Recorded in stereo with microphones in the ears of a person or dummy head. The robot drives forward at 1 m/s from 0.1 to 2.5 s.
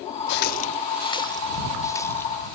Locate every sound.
0.3 s a running tap: 50° left (ahead or behind); by 2.3 s 10° left (ahead or behind)